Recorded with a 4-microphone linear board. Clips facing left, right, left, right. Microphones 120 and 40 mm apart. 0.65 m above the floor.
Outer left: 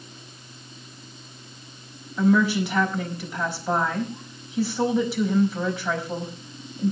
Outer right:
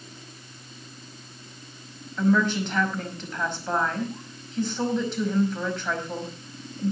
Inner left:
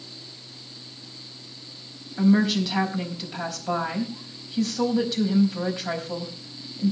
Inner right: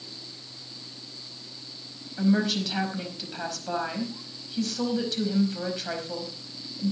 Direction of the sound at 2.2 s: 10° left (ahead or behind).